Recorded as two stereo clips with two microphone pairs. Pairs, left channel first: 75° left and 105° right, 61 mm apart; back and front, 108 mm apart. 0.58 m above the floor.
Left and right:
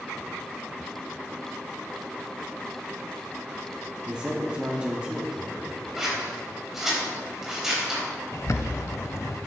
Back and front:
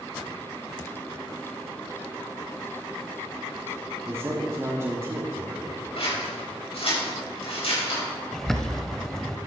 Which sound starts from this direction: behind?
Scissors, at 6.0 s.